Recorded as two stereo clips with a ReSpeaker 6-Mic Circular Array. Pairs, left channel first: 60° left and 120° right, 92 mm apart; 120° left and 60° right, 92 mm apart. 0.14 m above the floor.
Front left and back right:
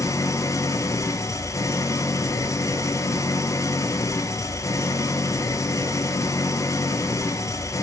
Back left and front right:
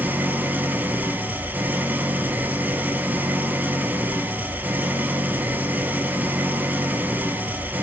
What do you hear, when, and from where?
0.0 s an engine running: 10° left, 1.3 m